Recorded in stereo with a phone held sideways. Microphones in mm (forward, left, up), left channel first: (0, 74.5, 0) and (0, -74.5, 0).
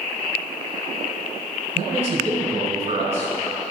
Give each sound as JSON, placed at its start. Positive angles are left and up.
{"t": 1.8, "sound": "a man speaking", "side_deg": -45, "distance_m": 4.0}